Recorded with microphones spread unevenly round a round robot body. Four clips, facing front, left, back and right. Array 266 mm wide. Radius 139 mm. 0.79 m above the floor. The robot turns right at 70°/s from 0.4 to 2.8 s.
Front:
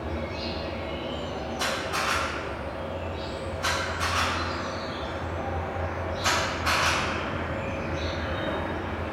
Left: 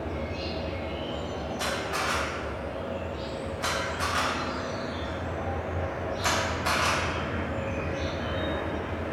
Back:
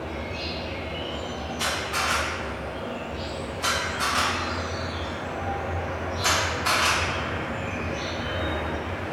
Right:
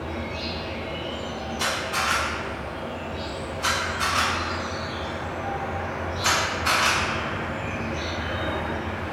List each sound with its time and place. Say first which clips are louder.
0.0 s an insect: right 2 dB, front 1 dB; 30° left, 1.2 m; by 9.1 s 160° right, 1.2 m
1.6 s a camera shutter: right 4 dB, back 1 dB; 50° left, 1.3 m; by 9.1 s 135° left, 1.3 m